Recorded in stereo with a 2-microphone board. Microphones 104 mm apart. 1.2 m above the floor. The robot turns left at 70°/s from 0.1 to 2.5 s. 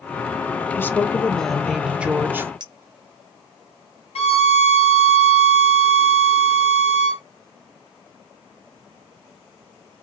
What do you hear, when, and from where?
0.8 s a woman speaking: 20° left (ahead or behind), 0.5 m; by 2.5 s 20° right (ahead or behind), 0.5 m
2.6 s a clink: 45° right (ahead or behind), 0.7 m
4.2 s a violin: 85° left, 1.1 m